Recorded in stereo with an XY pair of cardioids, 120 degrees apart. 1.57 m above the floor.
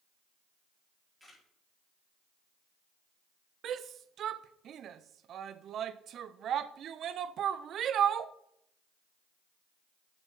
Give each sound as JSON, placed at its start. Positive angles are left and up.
{"t": 1.2, "sound": "a camera shutter", "azimuth_deg": -5, "distance_m": 5.0}
{"t": 3.6, "sound": "a shout", "azimuth_deg": -55, "distance_m": 0.5}